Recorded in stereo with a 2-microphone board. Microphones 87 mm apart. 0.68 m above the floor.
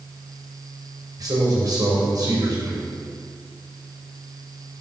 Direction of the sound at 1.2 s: 50° right (ahead or behind).